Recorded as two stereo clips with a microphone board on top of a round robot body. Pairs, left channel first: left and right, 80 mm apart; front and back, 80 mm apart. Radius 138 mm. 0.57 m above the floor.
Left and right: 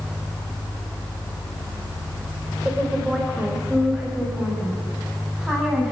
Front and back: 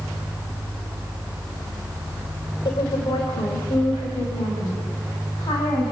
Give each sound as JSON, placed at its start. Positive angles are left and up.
{"t": 2.6, "sound": "a woman speaking", "azimuth_deg": -10, "distance_m": 3.5}